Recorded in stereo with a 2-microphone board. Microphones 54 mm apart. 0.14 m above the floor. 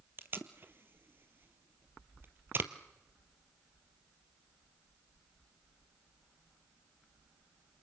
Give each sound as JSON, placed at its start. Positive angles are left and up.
{"t": 0.2, "sound": "tape being pulled", "side_deg": -40, "distance_m": 1.3}